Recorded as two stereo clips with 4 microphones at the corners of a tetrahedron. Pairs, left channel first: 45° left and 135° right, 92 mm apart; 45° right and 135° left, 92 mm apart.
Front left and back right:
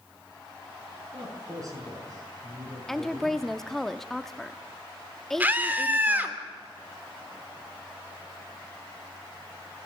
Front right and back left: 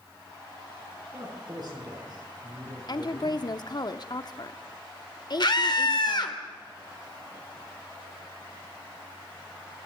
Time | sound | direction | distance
1.1 | a man speaking | 175° left | 6.5 m
2.9 | a woman speaking | 40° right | 0.9 m
5.4 | a scream | 65° right | 2.5 m